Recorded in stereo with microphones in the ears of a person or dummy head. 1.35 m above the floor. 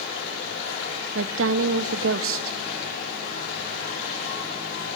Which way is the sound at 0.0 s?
65° left (ahead or behind).